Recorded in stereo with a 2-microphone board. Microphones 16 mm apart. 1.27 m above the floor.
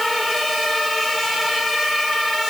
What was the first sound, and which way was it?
Only background noise.